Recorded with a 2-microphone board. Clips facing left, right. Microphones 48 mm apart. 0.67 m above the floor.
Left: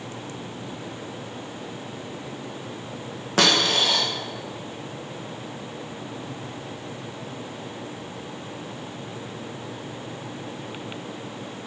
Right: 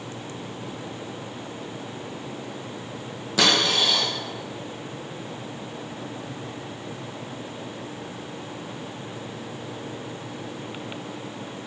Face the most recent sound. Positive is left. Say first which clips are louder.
# left 1 dB
turn(degrees=45)  # may be behind; listen again after turning